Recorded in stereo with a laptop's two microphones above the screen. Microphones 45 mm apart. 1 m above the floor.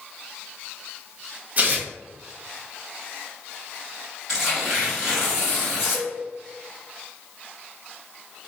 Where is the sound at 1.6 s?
40° right (ahead or behind), 0.6 m.